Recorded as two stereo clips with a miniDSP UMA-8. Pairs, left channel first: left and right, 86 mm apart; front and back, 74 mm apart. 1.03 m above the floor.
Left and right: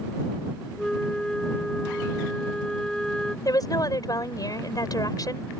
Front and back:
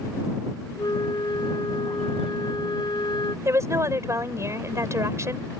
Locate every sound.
0.8 s a flute: 5° left
3.5 s a woman speaking: 130° left